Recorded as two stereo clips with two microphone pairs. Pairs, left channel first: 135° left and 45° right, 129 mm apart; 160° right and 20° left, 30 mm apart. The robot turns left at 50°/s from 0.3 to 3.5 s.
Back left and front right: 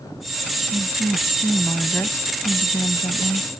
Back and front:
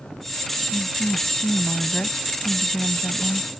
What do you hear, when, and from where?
0.7 s a woman speaking: 95° right; by 3.6 s 125° left